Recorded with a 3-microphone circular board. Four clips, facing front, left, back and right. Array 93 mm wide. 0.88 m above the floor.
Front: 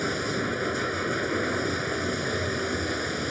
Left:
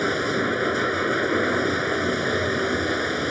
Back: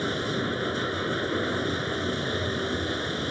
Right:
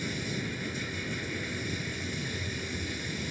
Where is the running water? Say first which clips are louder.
Left 12 dB, even; 85° left.